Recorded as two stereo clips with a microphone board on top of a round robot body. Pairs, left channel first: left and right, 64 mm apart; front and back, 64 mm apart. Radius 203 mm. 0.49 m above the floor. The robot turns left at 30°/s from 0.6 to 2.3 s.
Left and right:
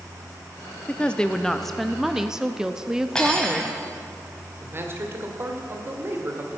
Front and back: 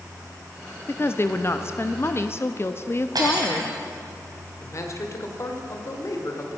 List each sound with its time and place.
0.9 s a woman speaking: 30° left, 0.9 m; by 3.8 s 15° right, 0.9 m
3.1 s cutlery clinking: 165° left, 2.5 m
4.6 s a man speaking: 40° right, 2 m